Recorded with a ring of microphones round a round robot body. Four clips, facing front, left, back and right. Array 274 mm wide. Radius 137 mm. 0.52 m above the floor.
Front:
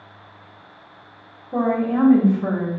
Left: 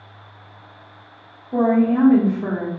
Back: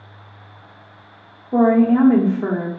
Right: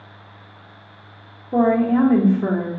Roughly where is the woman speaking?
Behind right.